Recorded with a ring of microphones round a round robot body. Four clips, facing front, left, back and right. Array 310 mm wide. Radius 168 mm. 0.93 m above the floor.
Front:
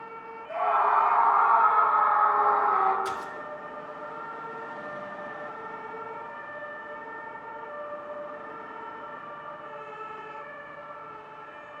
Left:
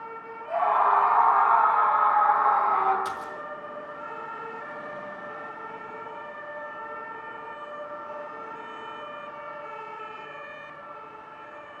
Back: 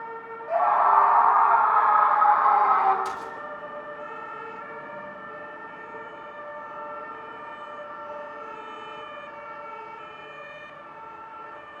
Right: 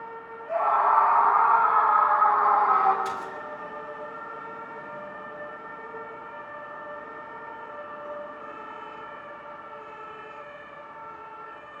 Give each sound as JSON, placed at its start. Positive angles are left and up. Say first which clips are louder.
{"t": 0.5, "sound": "a scream", "louder": "even, back 4 dB", "azimuth_deg": 155, "distance_m": 9.0}
{"t": 3.0, "sound": "a splash", "louder": "right 1 dB, even", "azimuth_deg": 90, "distance_m": 4.0}